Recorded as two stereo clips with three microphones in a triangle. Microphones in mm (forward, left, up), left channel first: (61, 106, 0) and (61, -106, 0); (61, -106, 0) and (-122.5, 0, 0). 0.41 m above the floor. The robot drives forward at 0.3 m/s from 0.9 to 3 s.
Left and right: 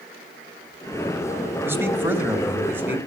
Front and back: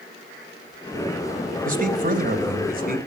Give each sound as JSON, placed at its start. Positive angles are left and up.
{"t": 1.6, "sound": "a man speaking", "azimuth_deg": -165, "distance_m": 2.5}